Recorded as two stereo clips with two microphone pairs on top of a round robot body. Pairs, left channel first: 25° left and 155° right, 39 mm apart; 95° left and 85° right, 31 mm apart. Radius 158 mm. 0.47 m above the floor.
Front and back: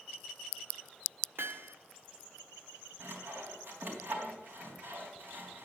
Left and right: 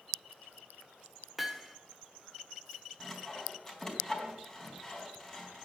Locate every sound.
1.4 s hammering: 165° right, 1.6 m
3.0 s sawing: 170° left, 4 m